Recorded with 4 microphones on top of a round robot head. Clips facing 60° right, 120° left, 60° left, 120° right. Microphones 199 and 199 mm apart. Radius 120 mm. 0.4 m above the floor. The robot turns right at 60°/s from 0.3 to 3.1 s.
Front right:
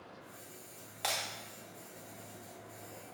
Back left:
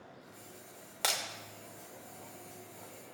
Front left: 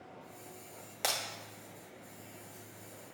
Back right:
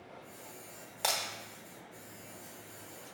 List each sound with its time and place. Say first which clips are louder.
1.0 s breaking glass: back left 1 dB, back right 1 dB; 130° left, 1.0 m; by 1.2 s 140° left, 1.0 m